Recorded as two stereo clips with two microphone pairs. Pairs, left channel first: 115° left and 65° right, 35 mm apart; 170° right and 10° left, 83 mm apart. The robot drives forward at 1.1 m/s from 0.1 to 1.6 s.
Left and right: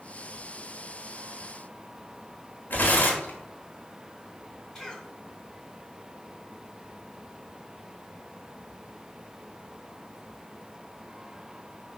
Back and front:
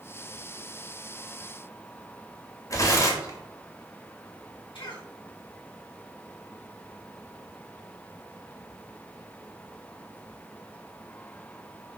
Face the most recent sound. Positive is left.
turn(degrees=-170)